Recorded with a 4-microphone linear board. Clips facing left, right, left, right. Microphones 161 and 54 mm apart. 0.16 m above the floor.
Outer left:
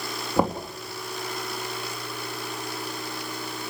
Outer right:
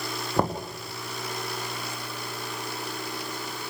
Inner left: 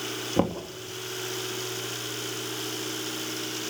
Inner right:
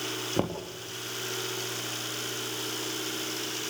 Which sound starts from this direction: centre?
Knocking, at 0.4 s.